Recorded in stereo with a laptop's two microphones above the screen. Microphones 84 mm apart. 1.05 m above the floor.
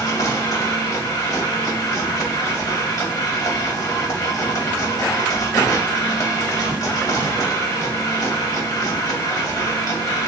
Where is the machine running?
40° left (ahead or behind), 2 m.